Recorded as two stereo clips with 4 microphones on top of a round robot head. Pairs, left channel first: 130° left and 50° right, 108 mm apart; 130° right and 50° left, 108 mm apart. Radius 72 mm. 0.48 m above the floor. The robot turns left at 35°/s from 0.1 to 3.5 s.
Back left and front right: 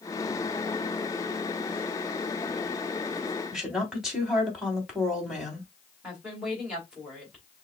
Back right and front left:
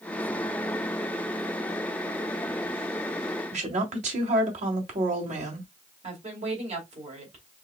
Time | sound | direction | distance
3.5 | a woman speaking | 35° left | 3 m
6.0 | a woman speaking | 35° left | 3 m